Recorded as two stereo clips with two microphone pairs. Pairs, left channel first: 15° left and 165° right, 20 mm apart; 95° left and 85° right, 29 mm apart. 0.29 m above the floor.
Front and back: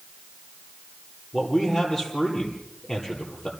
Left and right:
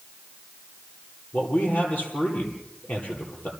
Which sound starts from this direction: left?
A man speaking, at 1.3 s.